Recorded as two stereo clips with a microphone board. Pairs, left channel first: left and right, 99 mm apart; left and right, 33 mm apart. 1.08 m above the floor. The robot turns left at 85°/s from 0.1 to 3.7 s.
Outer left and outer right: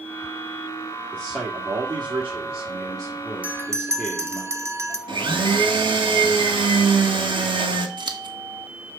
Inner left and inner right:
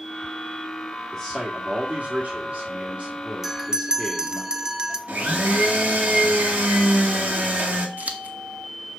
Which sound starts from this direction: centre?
A bell, at 3.4 s.